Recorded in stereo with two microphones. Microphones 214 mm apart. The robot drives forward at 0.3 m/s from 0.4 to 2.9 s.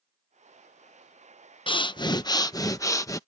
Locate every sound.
1.7 s breathing: 25° left (ahead or behind); by 3.2 s 15° left (ahead or behind)